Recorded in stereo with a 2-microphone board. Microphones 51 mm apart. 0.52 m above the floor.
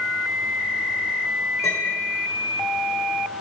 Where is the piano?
80° left, 6.5 m.